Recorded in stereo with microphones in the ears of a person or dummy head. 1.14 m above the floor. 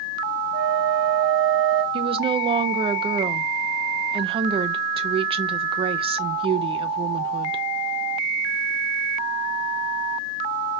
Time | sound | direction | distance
0.5 | a flute | 55° right (ahead or behind) | 2 m
1.9 | a woman speaking | 25° right (ahead or behind) | 0.6 m